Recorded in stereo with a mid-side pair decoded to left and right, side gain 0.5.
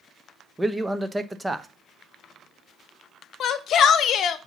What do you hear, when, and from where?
0.6 s a man speaking: 15° right, 0.9 m
3.4 s a shout: 55° left, 0.9 m